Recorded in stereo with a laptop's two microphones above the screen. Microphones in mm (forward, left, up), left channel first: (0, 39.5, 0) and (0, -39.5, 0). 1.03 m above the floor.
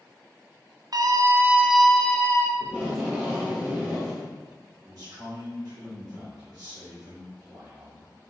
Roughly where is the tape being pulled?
Centre.